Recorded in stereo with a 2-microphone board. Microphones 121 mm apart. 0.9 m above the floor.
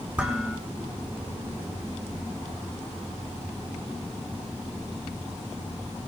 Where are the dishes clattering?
10° right (ahead or behind), 7 m.